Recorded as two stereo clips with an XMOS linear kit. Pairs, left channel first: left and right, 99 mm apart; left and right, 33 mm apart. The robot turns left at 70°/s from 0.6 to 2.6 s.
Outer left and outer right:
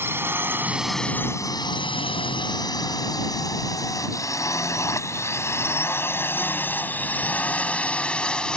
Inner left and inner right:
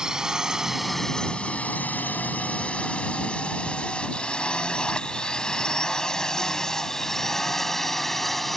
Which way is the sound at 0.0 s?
25° right (ahead or behind).